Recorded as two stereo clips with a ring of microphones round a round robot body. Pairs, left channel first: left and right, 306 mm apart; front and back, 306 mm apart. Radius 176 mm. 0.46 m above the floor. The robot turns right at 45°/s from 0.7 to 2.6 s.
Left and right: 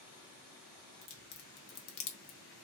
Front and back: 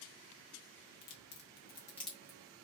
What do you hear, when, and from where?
1.0 s a crack: 40° left, 1.0 m; by 2.4 s 105° left, 1.0 m